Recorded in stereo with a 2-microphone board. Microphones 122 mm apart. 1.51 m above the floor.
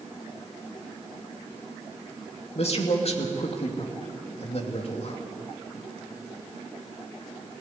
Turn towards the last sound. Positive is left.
turn(degrees=55)  # may be behind; listen again after turning